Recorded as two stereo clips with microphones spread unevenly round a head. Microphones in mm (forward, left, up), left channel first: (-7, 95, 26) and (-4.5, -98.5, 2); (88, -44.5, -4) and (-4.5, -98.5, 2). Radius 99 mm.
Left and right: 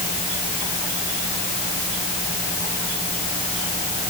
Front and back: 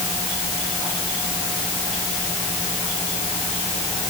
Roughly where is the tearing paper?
No tearing paper in this recording.